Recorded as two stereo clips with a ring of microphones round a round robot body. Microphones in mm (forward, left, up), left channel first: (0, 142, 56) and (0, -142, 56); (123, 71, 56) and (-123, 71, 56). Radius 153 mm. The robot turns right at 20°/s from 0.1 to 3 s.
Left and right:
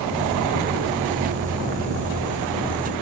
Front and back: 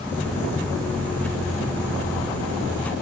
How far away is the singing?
No singing in this recording.